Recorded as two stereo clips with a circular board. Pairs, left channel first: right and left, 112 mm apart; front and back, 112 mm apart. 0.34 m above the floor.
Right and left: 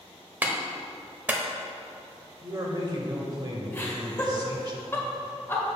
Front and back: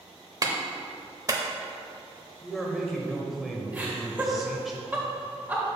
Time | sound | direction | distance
0.4 | a clap | 155° left | 0.8 m
2.4 | a man speaking | 90° left | 1.0 m
3.7 | laughter | 130° right | 1.4 m